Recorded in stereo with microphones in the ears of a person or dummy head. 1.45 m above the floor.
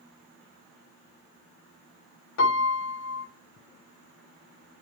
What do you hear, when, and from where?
2.4 s a piano: 70° left (ahead or behind), 1.2 m